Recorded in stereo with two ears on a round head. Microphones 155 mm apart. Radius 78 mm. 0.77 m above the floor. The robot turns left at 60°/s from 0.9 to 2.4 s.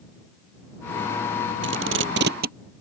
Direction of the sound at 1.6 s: 75° right (ahead or behind).